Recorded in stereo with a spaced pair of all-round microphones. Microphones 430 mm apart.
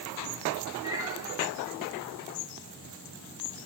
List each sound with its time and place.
0.8 s a cat meowing: 10° right (ahead or behind), 8 m